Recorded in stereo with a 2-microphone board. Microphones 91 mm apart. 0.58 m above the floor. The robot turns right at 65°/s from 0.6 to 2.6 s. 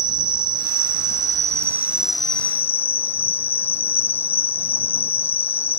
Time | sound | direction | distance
0.0 | an insect | 100° right | ?